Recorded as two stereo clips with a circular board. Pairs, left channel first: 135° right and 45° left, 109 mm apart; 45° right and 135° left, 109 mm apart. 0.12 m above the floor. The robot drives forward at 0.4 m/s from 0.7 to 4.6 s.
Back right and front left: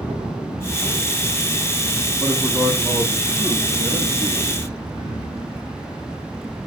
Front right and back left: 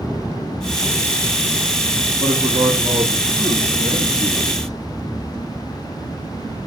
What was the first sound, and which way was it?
A man speaking, 150° left.